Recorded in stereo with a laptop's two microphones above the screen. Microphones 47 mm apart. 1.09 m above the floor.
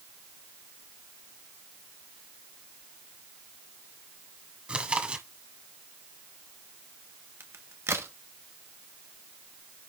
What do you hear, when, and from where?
4.7 s chewing: 25° right (ahead or behind), 1.5 m
7.4 s a crack: 75° right (ahead or behind), 1.4 m